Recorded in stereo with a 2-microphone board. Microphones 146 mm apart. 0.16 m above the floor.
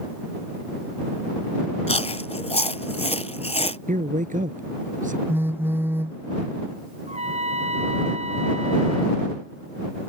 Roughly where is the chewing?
Left.